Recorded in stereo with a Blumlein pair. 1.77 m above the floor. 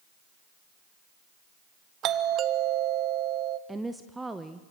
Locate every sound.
2.0 s a doorbell: 30° right, 0.8 m
3.7 s a woman speaking: 5° right, 0.9 m